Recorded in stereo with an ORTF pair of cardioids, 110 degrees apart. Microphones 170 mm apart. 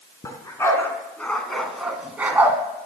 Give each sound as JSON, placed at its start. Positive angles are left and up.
{"t": 0.2, "sound": "a dog barking", "azimuth_deg": 20, "distance_m": 4.0}